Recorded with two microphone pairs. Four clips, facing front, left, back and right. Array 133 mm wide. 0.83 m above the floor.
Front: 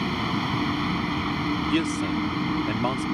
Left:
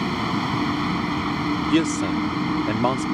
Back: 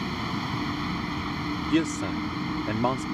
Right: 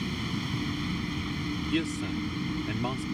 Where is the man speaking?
100° left.